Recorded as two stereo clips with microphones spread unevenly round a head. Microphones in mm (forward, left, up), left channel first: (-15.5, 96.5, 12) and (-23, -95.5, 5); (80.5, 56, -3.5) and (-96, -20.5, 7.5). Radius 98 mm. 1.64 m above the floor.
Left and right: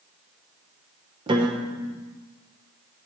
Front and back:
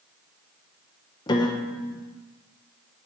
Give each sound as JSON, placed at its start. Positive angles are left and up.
{"t": 1.3, "sound": "a piano", "azimuth_deg": -35, "distance_m": 0.8}